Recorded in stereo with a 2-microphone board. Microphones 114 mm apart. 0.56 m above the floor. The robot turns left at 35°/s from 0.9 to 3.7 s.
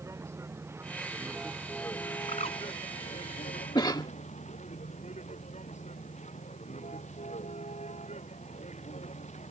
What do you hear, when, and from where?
0.0 s a vehicle: 25° right (ahead or behind); by 9.5 s 80° left
2.3 s a bird: 75° left (ahead or behind); by 2.6 s 60° left (ahead or behind)
3.8 s a cough: 35° left (ahead or behind)